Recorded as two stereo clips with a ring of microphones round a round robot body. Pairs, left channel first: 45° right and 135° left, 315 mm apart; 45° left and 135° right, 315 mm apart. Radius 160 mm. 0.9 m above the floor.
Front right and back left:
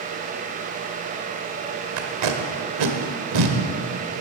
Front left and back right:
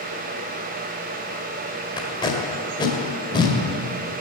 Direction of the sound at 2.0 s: 120° left.